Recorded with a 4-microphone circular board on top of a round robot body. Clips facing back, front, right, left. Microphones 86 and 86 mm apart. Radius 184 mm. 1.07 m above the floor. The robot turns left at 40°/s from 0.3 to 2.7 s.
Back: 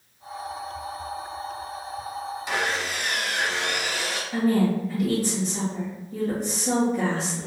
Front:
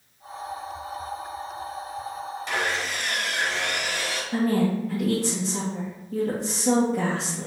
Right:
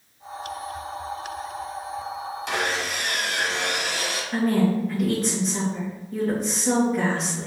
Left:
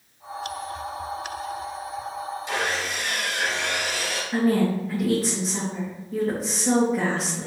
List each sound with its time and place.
2.5 s sawing: 100° right, 1.6 m; by 4.2 s 105° right, 1.6 m
4.3 s a woman speaking: 5° left, 1.4 m